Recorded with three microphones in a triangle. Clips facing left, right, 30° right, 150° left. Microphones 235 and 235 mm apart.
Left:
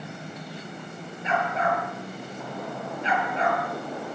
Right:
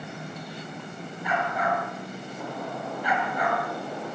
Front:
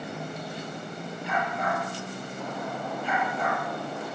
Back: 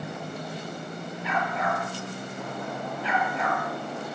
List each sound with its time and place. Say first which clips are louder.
1.2 s a dog barking: left 2 dB, back 1 dB; 155° left, 8 m